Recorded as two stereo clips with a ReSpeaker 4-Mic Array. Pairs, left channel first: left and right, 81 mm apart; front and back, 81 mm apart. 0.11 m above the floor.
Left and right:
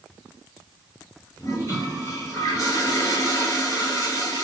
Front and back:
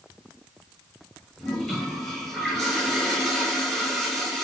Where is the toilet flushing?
85° left, 2 m.